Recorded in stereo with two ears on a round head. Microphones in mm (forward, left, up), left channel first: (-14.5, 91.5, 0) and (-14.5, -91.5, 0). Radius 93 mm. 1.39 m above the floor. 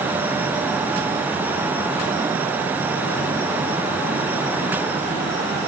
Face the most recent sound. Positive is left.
No sound to turn to.